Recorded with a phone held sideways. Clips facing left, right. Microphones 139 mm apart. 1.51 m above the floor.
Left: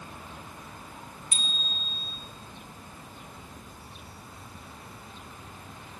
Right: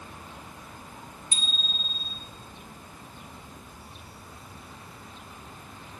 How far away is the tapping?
No tapping in this recording.